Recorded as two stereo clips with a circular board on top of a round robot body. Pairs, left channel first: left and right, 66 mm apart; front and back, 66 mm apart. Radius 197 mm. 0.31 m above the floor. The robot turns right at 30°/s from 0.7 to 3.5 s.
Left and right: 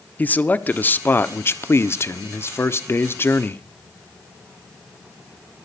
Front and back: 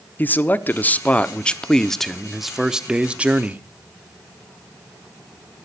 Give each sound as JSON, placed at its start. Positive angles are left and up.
{"t": 0.2, "sound": "a man speaking", "azimuth_deg": 40, "distance_m": 1.2}